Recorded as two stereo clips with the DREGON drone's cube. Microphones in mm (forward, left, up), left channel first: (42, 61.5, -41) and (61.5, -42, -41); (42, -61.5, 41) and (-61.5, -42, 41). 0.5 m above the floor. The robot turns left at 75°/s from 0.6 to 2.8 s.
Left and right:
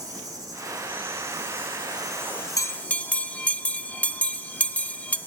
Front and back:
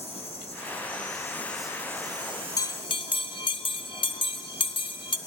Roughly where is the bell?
Ahead left.